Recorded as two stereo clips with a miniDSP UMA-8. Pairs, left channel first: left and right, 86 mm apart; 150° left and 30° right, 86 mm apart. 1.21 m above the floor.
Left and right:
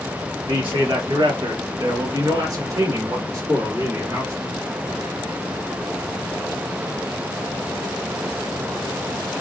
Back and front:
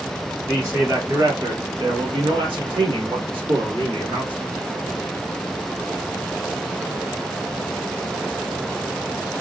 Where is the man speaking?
95° right, 0.8 m; by 4.4 s 30° right, 2.5 m.